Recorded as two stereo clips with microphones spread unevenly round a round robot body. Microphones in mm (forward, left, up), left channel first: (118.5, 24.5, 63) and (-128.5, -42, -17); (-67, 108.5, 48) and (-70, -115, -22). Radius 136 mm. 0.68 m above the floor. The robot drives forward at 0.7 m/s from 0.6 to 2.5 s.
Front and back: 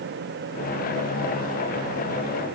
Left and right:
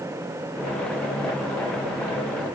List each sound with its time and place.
Only background noise.